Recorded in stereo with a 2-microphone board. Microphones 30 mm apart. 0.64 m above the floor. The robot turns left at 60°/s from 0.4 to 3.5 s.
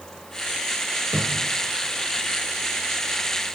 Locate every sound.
1.1 s a cupboard door: 65° right (ahead or behind), 4.5 m; by 1.6 s 90° right, 4.5 m